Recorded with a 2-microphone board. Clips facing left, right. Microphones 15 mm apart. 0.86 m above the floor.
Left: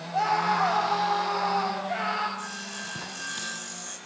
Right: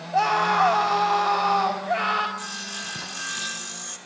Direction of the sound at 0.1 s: 70° right (ahead or behind).